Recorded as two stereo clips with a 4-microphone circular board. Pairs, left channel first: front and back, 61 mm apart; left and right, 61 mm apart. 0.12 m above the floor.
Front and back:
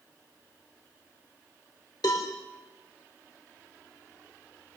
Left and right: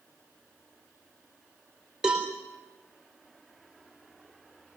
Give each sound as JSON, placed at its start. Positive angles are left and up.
{"t": 2.0, "sound": "a cowbell", "azimuth_deg": -10, "distance_m": 3.5}